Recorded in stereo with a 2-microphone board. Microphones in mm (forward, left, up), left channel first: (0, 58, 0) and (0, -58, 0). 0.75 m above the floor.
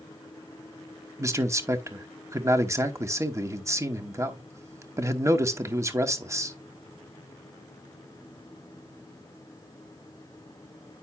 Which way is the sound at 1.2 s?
25° right (ahead or behind).